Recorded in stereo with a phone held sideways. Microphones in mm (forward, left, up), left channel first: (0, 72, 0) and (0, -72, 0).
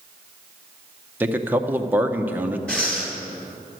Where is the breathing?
5° left (ahead or behind), 2 m.